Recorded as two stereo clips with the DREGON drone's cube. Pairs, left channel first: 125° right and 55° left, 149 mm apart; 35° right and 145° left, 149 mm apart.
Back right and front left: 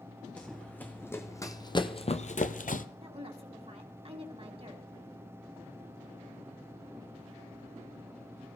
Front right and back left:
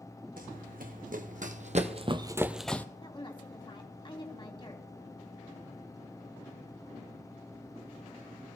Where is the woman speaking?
15° left, 2 m.